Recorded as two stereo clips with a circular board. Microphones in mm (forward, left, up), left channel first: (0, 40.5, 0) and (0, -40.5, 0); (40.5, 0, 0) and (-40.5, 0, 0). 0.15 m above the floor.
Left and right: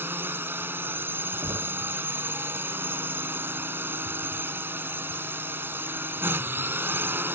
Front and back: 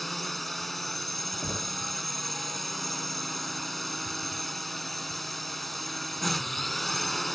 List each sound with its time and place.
0.0 s a drone: 85° right
1.4 s knocking: 75° right